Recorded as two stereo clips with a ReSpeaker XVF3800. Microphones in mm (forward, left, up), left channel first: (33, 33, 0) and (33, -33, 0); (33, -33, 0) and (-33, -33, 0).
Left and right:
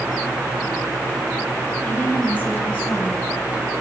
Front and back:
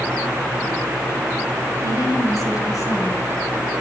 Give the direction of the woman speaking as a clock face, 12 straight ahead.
11 o'clock.